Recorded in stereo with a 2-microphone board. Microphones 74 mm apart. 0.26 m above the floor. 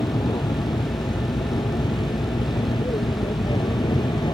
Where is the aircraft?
65° left (ahead or behind); by 4.3 s 70° left (ahead or behind).